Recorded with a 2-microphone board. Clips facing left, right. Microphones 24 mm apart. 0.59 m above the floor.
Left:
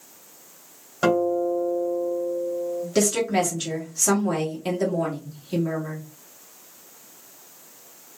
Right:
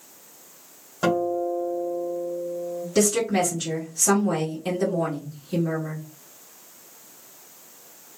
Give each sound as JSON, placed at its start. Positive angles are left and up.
{"t": 1.0, "sound": "a guitar", "side_deg": 20, "distance_m": 1.1}
{"t": 3.0, "sound": "a woman speaking", "side_deg": 35, "distance_m": 1.4}